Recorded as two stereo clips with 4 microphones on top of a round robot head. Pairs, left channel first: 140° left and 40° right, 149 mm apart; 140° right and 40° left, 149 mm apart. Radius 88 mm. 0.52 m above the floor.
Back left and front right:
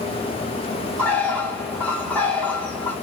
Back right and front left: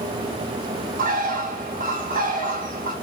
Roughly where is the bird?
Ahead left.